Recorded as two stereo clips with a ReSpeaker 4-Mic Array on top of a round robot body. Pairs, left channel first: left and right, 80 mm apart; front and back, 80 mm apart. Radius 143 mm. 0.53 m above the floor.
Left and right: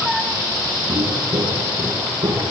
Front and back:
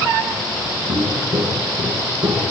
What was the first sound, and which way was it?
Footsteps, 150° right.